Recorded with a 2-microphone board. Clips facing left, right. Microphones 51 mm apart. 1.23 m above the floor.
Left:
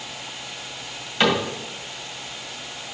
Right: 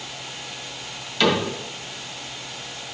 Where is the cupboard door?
25° left (ahead or behind), 2 m.